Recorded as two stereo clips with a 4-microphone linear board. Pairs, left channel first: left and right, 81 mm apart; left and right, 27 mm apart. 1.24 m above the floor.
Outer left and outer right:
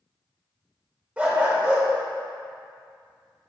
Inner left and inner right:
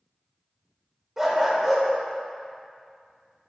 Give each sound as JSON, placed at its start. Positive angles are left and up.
{"t": 1.2, "sound": "a dog barking", "side_deg": -15, "distance_m": 1.8}